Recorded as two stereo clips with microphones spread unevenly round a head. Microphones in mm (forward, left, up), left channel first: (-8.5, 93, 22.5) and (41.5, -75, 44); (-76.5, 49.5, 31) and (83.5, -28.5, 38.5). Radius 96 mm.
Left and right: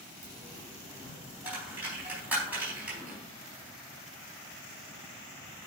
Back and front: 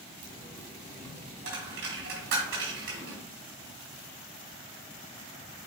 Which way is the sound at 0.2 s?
5° left.